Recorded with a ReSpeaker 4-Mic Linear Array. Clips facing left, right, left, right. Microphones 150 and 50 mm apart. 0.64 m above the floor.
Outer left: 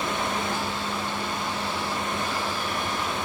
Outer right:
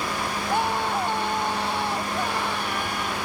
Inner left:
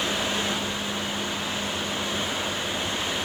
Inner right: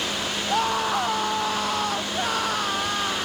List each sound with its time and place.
0.5 s a scream: 60° right (ahead or behind); by 3.3 s 65° right (ahead or behind)